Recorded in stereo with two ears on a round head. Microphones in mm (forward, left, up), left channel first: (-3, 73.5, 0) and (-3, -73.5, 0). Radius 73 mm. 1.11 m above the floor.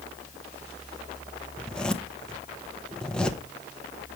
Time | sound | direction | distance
1.6 | a zipper | 5° left (ahead or behind) | 0.9 m